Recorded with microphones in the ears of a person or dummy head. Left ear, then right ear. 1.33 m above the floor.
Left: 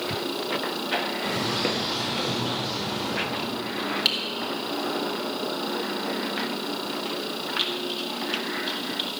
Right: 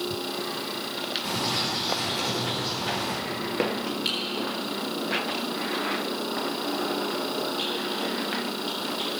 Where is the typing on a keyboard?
30° left (ahead or behind), 2.5 m.